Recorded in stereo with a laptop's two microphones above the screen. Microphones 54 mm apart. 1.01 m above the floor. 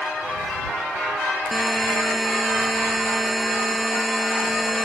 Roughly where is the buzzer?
Centre.